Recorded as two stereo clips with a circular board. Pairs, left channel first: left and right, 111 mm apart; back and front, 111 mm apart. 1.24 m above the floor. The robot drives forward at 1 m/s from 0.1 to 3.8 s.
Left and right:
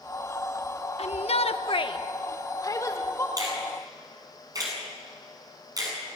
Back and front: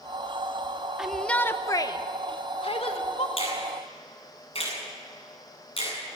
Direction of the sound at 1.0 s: 85° left.